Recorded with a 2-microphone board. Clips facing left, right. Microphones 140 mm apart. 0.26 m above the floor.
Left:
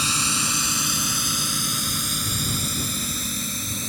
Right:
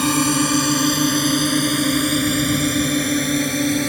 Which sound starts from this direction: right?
A drone, at 0.0 s.